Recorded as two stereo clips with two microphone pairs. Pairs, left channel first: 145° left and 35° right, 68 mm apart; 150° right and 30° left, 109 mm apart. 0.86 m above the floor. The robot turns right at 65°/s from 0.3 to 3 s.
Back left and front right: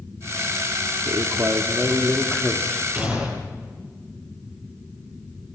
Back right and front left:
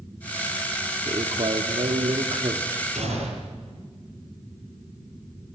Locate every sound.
1.1 s a man speaking: 20° right, 2 m; by 2.8 s 95° left, 2 m
2.9 s a gunshot: 30° left, 10 m; by 3.7 s 35° left, 10 m